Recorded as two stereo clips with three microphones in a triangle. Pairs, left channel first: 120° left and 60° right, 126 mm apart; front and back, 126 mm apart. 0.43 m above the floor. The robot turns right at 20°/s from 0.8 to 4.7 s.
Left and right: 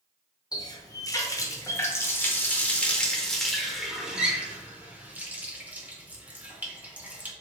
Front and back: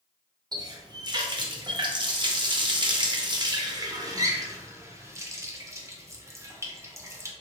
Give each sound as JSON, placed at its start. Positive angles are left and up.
{"t": 0.5, "sound": "a running tap", "azimuth_deg": 155, "distance_m": 0.5}